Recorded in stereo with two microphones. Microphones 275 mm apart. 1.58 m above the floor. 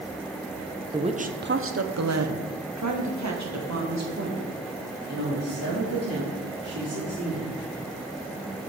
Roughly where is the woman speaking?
Centre.